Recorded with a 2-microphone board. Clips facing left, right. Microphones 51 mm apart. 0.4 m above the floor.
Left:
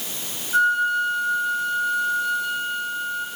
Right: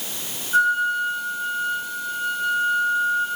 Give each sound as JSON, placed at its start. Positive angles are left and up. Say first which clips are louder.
{"t": 0.5, "sound": "a flute", "louder": "even", "side_deg": -5, "distance_m": 5.0}